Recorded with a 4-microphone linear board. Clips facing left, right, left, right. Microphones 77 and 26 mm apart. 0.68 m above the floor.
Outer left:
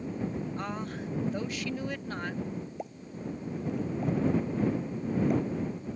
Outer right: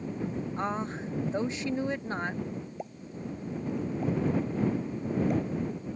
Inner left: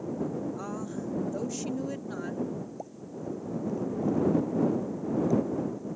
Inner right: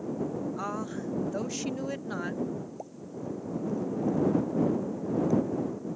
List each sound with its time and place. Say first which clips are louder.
0.6 s a woman speaking: outer right 3 dB, inner right 2 dB; 25° right (ahead or behind)
2.8 s a pop: even, even; centre (ahead or behind)